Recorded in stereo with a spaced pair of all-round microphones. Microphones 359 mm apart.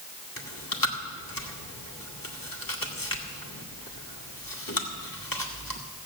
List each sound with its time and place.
0.4 s chewing: 65° left (ahead or behind), 1.6 m